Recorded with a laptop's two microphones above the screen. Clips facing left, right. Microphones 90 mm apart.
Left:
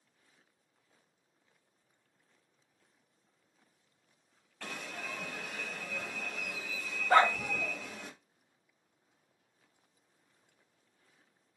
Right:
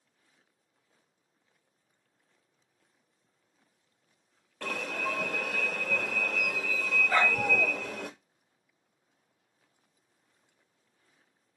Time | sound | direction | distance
4.6 | an alarm | 70° right (ahead or behind) | 0.7 m
7.1 | a dog barking | 40° left (ahead or behind) | 1.2 m